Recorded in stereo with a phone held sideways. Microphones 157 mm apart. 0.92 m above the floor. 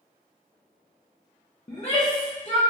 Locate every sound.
1.7 s a shout: 35° left (ahead or behind), 0.6 m